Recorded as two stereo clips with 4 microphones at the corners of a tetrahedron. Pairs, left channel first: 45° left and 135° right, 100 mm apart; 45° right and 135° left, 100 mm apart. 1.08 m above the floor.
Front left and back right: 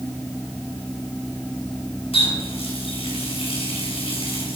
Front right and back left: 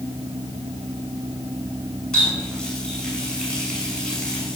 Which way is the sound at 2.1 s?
35° left.